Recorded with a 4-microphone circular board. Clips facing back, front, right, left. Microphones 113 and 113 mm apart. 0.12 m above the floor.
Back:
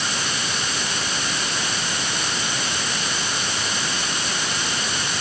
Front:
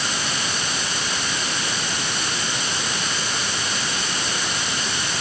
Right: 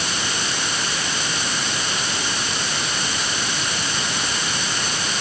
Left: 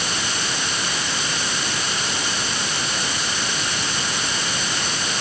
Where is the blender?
I don't hear a blender.